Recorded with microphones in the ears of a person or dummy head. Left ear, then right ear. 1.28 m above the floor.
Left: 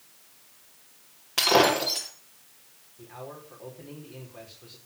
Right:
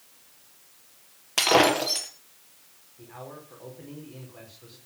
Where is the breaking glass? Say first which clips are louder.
Right 1 dB; 15° right (ahead or behind), 3.5 m.